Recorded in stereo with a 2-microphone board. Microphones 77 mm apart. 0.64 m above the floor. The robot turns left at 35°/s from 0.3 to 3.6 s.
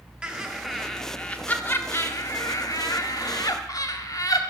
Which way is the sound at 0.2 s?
165° right.